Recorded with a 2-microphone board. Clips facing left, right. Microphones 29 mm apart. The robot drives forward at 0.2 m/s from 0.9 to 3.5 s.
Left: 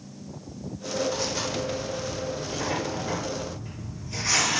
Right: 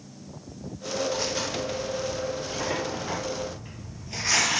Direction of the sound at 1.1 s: 15° right (ahead or behind).